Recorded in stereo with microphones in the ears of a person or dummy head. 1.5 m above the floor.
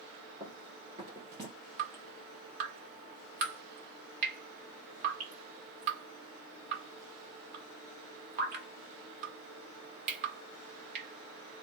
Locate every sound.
0.4 s running footsteps: 20° right (ahead or behind), 1.8 m; by 1.5 s 15° right (ahead or behind), 1.5 m
1.8 s dripping: 55° right (ahead or behind), 1.6 m